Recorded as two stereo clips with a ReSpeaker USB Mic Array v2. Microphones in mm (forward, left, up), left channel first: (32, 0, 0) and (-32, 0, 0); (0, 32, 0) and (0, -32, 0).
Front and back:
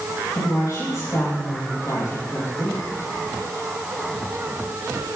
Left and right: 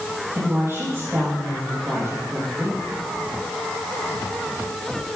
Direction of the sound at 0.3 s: 40° right.